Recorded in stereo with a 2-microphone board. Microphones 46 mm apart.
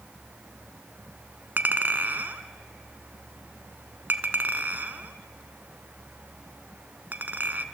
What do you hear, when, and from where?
1.6 s a clink: 50° right (ahead or behind), 1.5 m